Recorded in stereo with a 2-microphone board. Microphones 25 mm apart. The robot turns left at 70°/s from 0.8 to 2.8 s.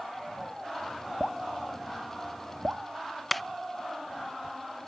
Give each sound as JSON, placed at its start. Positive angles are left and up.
{"t": 1.2, "sound": "dripping", "side_deg": 35}
{"t": 3.3, "sound": "a clap", "side_deg": 5}